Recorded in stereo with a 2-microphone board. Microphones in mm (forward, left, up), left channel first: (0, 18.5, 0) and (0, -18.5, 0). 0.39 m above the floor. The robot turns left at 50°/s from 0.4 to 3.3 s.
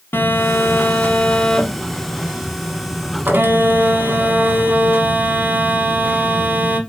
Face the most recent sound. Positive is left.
turn(degrees=-70)